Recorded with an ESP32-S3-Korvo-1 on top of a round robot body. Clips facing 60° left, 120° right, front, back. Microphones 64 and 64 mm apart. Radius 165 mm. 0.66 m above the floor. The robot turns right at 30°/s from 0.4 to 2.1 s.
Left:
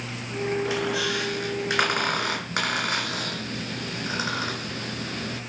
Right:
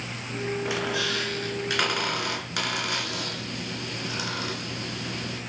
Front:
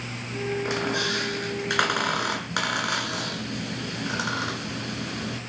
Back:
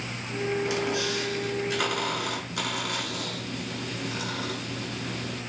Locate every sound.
0.7 s a squeak: 45° right, 3.5 m; by 5.4 s straight ahead, 3.5 m